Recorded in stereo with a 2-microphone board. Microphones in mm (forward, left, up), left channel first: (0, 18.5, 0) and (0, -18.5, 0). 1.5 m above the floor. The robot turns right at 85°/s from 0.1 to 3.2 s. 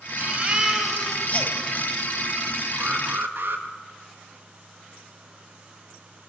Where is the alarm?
140° right, 2.5 m; by 3.6 s 105° right, 2.5 m.